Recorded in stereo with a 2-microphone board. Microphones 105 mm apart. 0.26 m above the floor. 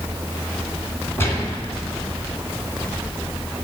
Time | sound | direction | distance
1.2 | a gunshot | 25° left (ahead or behind) | 2.5 m